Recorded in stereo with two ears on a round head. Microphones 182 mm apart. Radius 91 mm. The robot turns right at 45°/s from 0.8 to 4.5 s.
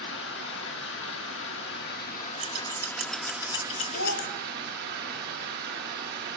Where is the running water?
70° left, 1.6 m; by 6.4 s 120° right, 1.6 m.